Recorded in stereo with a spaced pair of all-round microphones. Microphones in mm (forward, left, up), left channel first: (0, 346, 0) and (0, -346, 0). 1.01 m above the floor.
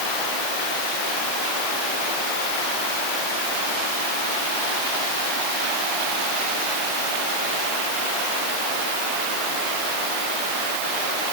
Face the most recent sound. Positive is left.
No sound to turn to.